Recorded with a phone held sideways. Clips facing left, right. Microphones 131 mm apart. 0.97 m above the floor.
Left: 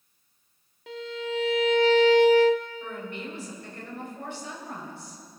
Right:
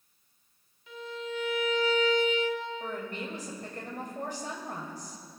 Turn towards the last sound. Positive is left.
turn(degrees=-40)  # may be behind; listen again after turning